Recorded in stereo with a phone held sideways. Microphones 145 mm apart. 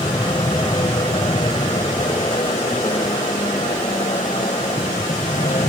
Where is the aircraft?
35° left (ahead or behind); by 5.7 s 45° left (ahead or behind).